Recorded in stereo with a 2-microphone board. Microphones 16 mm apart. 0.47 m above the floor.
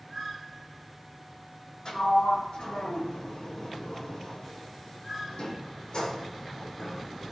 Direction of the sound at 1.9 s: 60° left (ahead or behind).